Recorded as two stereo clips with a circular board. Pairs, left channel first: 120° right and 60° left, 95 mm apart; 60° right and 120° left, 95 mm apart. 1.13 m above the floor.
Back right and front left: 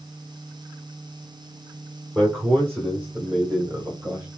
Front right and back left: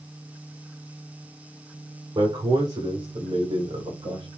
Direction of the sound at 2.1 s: 130° left.